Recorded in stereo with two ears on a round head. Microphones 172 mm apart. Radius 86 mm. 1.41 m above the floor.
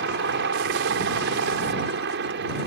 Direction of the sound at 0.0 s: 55° right (ahead or behind).